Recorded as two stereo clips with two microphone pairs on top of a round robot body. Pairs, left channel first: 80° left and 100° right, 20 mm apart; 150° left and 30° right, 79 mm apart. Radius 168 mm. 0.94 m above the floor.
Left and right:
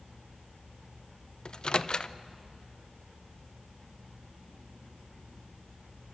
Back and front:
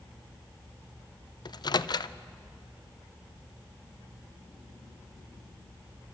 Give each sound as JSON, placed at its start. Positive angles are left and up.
{"t": 1.4, "sound": "a microwave", "azimuth_deg": 115, "distance_m": 0.5}